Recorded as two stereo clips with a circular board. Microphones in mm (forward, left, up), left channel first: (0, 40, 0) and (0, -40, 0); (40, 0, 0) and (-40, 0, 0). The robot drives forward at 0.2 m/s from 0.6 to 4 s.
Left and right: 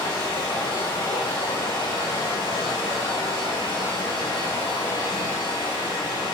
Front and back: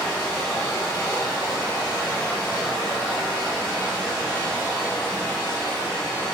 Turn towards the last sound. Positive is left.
turn(degrees=110)